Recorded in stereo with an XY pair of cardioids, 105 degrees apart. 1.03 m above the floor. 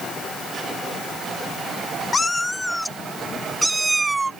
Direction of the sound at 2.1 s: 30° left.